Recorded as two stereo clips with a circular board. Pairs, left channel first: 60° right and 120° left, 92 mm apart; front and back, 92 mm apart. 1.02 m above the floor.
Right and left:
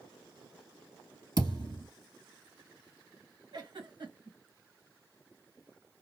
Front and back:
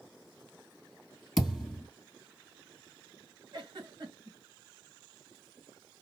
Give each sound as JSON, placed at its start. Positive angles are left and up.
{"t": 1.4, "sound": "a thud", "azimuth_deg": 90, "distance_m": 1.9}
{"t": 3.5, "sound": "a giggle", "azimuth_deg": 145, "distance_m": 1.5}